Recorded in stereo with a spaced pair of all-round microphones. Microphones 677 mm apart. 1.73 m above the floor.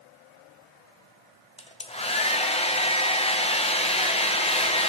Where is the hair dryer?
10° left (ahead or behind), 0.6 m.